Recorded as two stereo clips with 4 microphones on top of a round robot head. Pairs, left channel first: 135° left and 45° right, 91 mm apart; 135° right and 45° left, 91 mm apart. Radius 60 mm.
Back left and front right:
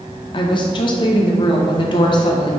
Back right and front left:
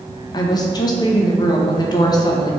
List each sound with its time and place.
0.3 s a woman speaking: 175° left, 1.5 m